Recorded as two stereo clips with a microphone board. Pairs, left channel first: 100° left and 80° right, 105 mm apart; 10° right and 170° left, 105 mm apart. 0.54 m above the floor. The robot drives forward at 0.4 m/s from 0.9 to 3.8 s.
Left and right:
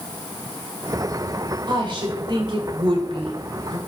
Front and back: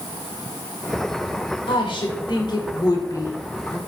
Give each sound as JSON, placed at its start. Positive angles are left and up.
{"t": 1.7, "sound": "a woman speaking", "azimuth_deg": -40, "distance_m": 1.7}